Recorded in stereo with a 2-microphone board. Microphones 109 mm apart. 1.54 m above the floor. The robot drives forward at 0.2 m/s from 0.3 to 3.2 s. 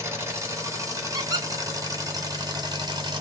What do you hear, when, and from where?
0.0 s an engine running: 25° right (ahead or behind), 1.2 m; by 3.2 s 45° right (ahead or behind), 0.7 m
1.1 s a squeak: 35° right (ahead or behind), 0.6 m